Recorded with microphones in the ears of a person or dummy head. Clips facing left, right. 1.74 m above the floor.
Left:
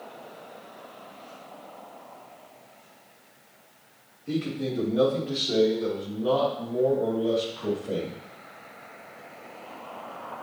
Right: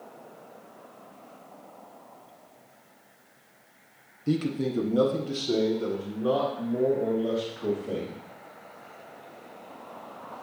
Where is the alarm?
No alarm in this recording.